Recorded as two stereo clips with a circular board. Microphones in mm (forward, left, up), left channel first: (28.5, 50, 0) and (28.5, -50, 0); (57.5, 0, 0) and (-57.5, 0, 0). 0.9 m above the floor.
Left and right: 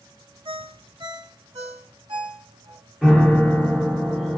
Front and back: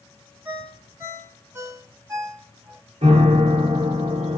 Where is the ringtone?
115° right, 1.3 m.